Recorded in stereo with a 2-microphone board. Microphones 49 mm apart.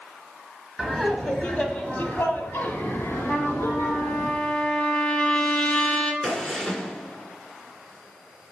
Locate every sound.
0.8 s laughter: centre (ahead or behind), 1.3 m; by 4.3 s 60° left (ahead or behind), 2 m
3.3 s a trumpet: 20° left (ahead or behind), 1.0 m
6.2 s a gunshot: 10° left (ahead or behind), 1.4 m